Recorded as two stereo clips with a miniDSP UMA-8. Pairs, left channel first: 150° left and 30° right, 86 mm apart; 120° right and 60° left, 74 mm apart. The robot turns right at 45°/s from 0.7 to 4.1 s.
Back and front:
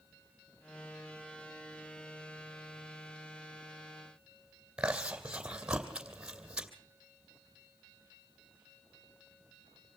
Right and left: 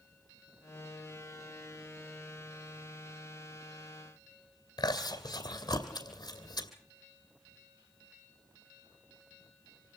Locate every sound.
4.8 s chewing: 105° right, 2.5 m